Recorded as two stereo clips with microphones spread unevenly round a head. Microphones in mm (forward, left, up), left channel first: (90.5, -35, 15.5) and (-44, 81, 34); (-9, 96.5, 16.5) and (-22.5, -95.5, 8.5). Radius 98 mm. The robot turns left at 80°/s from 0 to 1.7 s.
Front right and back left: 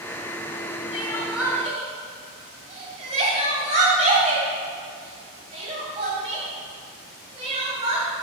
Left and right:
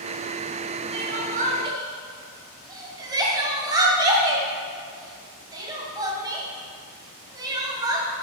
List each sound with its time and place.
0.9 s crying: 100° right, 2.0 m; by 8.1 s 165° right, 2.0 m